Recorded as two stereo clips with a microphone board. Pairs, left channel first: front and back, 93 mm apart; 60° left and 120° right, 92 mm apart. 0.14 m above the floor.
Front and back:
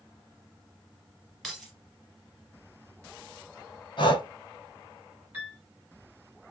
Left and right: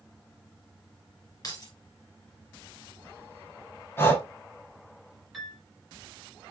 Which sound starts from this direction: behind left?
A piano, at 5.3 s.